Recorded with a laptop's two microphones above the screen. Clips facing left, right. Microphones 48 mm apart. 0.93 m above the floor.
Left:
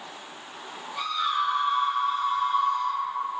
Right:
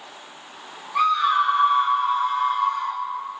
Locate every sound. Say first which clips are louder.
0.9 s a scream: right 8 dB; 75° right (ahead or behind), 2.5 m; by 3.0 s 70° right (ahead or behind), 1.4 m